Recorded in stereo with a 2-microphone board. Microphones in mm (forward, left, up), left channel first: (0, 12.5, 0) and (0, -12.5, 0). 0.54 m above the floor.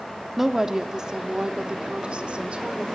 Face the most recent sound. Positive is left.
turn(degrees=-60)  # may be behind; listen again after turning